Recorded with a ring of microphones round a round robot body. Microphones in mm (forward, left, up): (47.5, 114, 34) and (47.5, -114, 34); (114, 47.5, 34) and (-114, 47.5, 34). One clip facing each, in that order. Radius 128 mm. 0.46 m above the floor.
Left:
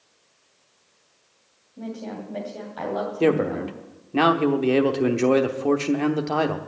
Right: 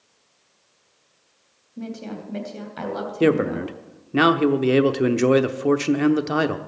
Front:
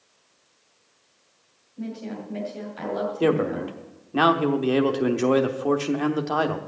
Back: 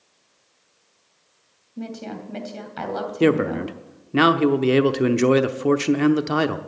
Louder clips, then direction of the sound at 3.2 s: Right 2 dB, back 4 dB; 150° right.